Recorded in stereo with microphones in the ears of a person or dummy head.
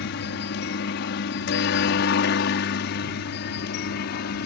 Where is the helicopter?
55° left (ahead or behind).